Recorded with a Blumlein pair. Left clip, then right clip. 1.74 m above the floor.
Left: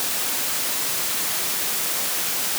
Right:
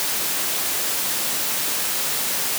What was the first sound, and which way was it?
Only background noise.